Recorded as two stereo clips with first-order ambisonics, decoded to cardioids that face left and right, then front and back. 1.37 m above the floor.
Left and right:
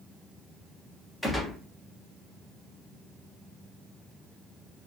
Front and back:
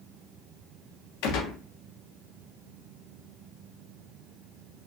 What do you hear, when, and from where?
1.2 s a gunshot: 10° left, 0.9 m